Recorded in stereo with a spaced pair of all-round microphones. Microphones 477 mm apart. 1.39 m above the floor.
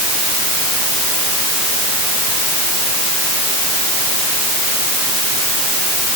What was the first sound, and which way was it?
Only background noise.